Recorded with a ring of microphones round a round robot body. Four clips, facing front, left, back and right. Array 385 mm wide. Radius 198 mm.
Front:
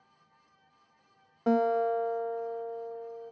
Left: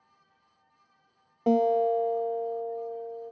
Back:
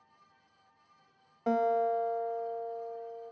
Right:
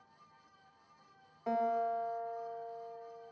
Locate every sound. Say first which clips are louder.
1.5 s a guitar: left 10 dB, front 2 dB; 65° left, 1.5 m